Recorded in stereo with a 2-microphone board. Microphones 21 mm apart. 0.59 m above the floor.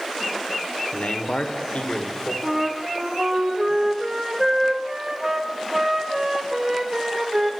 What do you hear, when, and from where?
0.9 s a man speaking: 60° left (ahead or behind), 2 m
2.4 s a flute: 20° right (ahead or behind), 1.9 m